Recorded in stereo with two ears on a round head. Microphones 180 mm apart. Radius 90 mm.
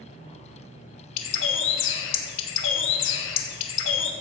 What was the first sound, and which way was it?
A bird, 70° left (ahead or behind).